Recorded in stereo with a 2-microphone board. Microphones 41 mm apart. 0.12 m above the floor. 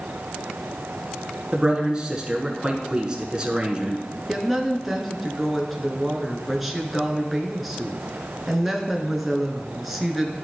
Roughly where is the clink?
No clink in this recording.